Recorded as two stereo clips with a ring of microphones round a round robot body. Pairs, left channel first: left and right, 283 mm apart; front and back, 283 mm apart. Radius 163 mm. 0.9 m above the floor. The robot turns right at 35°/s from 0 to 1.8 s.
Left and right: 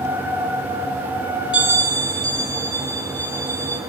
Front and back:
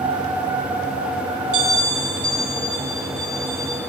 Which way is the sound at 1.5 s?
175° right.